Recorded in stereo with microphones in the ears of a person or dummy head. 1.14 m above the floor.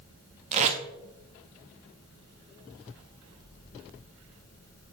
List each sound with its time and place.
0.5 s tape being pulled: 40° right (ahead or behind), 1.1 m